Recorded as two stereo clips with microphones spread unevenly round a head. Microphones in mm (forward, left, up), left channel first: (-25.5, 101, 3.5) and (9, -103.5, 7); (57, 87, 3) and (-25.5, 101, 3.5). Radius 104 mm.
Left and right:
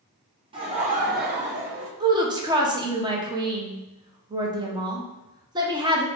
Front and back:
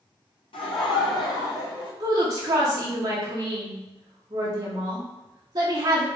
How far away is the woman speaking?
About 0.7 m.